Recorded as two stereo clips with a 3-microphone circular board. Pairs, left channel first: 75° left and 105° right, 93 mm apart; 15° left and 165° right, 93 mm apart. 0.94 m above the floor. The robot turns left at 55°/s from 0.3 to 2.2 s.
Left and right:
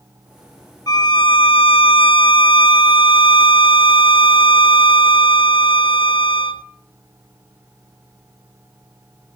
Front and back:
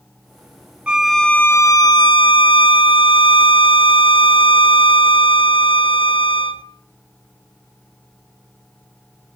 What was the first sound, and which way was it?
A violin, 115° left.